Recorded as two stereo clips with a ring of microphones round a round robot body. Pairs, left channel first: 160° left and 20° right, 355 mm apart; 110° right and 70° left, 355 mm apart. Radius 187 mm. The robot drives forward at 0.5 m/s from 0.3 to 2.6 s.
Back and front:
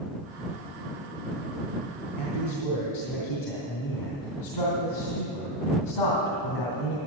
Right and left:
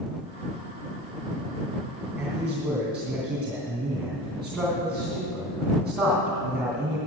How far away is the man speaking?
About 2.5 m.